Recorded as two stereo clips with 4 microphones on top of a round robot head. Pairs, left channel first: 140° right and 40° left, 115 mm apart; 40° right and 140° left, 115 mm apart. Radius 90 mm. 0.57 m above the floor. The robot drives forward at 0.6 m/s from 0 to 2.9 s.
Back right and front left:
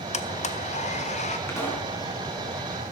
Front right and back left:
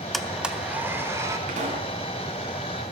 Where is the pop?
150° left, 4 m; by 1.9 s 155° left, 4 m.